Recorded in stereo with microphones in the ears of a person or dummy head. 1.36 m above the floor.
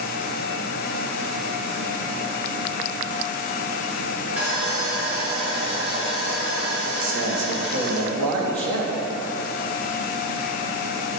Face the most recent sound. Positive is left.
turn(degrees=-80)